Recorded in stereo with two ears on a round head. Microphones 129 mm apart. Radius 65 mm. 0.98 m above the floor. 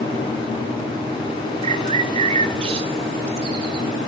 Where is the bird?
40° right (ahead or behind), 1.0 m.